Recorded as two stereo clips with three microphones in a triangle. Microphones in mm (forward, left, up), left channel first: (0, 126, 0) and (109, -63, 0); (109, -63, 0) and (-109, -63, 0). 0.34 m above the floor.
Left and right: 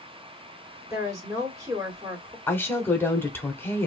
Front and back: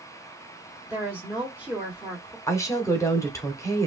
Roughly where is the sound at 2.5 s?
Ahead left.